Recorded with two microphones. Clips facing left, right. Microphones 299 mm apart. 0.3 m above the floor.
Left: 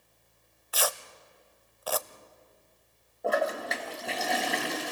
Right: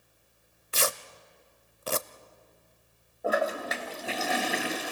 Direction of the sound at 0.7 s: 30° right (ahead or behind).